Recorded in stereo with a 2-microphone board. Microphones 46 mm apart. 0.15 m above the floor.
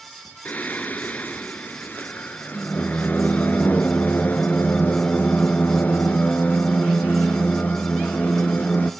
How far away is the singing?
About 0.6 m.